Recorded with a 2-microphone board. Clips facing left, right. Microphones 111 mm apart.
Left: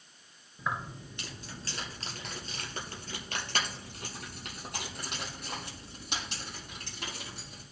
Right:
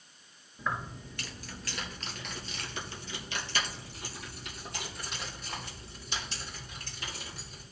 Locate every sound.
0.6 s keys jangling: 10° left (ahead or behind), 1.8 m; by 7.6 s 70° left (ahead or behind), 5.5 m